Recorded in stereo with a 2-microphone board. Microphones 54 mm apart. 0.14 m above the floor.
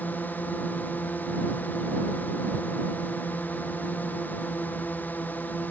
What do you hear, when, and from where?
0.0 s a drone: 35° left (ahead or behind)